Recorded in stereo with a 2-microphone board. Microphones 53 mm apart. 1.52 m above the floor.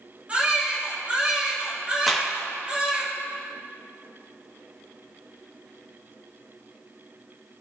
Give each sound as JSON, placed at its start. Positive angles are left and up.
{"t": 0.3, "sound": "a baby crying", "side_deg": -25, "distance_m": 2.5}
{"t": 2.1, "sound": "a clap", "side_deg": 5, "distance_m": 1.8}